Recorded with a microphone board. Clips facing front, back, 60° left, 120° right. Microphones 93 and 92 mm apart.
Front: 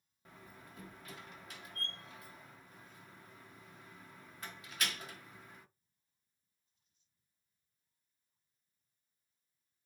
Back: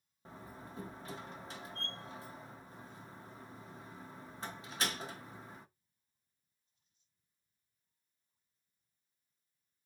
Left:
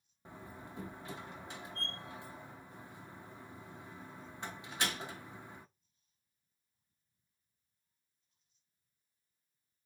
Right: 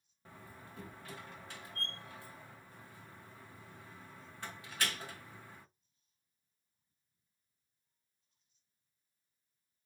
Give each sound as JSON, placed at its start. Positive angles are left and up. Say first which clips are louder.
{"t": 0.2, "sound": "a door slam", "louder": "back 6 dB, left 4 dB", "azimuth_deg": 125, "distance_m": 0.6}